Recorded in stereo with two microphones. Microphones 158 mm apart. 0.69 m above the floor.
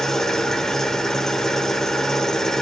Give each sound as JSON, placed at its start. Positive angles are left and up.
{"t": 0.0, "sound": "an engine running", "side_deg": 5, "distance_m": 1.0}